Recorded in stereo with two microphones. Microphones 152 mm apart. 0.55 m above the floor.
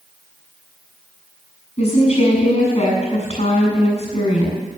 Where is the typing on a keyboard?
No typing on a keyboard in this recording.